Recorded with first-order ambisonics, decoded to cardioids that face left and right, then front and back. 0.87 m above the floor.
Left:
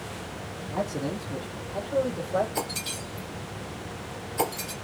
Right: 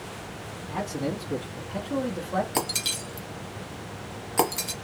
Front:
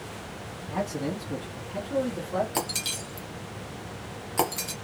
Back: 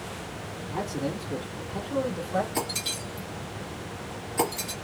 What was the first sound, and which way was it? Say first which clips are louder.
A man speaking: even, front 1 dB; 35° right.